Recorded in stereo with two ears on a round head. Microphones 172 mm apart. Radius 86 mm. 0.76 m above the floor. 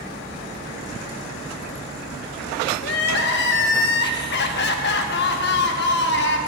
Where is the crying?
60° left (ahead or behind), 0.8 m.